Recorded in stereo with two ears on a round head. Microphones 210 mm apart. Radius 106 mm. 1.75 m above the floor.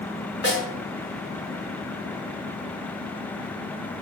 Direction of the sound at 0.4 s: 50° left (ahead or behind).